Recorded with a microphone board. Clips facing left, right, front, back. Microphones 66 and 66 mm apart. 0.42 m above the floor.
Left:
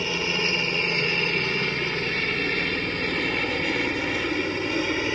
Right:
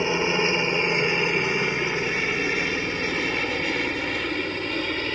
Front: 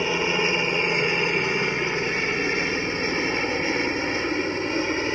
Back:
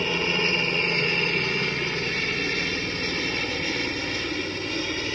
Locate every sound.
0.0 s a helicopter: 60° right; by 5.2 s 15° left